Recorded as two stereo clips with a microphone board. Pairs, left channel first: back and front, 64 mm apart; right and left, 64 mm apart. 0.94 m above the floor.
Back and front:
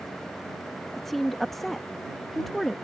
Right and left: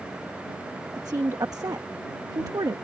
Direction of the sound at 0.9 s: 95° left.